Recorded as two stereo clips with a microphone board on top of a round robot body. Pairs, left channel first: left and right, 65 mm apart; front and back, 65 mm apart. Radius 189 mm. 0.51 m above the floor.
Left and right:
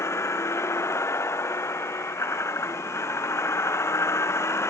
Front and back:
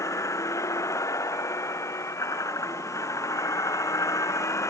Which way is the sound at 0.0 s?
45° left.